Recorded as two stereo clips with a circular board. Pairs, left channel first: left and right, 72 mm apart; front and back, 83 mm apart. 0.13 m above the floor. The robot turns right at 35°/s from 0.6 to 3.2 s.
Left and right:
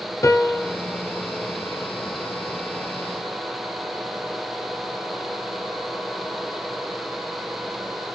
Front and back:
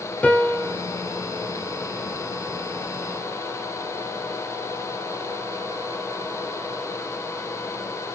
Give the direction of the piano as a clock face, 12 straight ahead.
10 o'clock.